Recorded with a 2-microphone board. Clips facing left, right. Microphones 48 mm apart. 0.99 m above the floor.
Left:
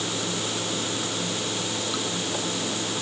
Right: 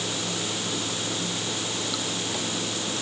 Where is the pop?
I don't hear a pop.